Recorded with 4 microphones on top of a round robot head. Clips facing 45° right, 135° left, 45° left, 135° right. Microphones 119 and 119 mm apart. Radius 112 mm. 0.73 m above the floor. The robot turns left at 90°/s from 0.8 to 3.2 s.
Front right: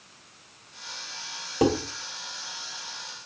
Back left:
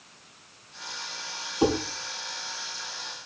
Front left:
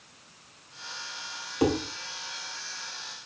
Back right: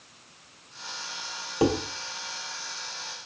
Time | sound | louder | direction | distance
1.6 | dishes clattering | front right 1 dB, back right 1 dB | 70° right | 3 m